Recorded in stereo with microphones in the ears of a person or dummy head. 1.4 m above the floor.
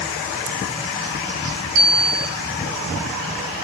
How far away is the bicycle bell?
About 8 m.